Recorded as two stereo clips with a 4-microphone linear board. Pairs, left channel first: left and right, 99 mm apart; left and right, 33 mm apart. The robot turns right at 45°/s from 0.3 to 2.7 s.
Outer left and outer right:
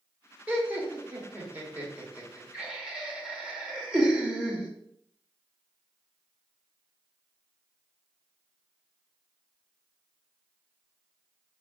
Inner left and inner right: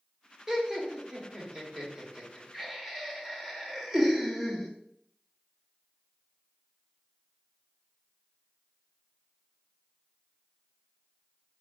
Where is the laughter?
15° right (ahead or behind), 0.9 m; by 4.7 s 10° right (ahead or behind), 0.9 m.